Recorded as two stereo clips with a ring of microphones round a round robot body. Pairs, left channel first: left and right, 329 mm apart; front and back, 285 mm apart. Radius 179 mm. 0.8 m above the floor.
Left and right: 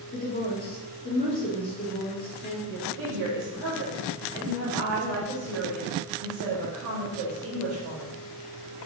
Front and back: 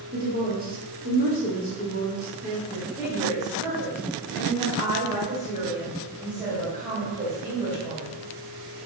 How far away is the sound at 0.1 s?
About 1.1 m.